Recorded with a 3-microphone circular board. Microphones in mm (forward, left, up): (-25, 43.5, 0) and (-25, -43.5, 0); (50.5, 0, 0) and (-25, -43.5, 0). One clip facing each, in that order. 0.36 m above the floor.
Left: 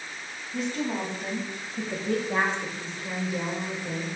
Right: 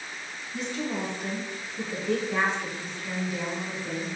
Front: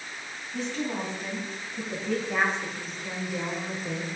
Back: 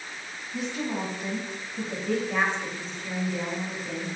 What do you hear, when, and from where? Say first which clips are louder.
0.5 s a woman speaking: left 2 dB, even; 130° left, 2.5 m; by 4.1 s 5° left, 1.2 m